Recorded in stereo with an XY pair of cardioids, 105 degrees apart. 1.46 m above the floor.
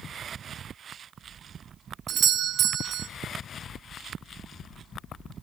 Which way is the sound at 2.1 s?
65° right.